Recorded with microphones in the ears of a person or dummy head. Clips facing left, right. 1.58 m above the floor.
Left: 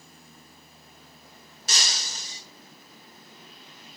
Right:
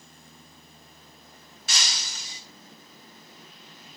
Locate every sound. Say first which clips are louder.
1.7 s breaking glass: left 1 dB; 40° left (ahead or behind), 2 m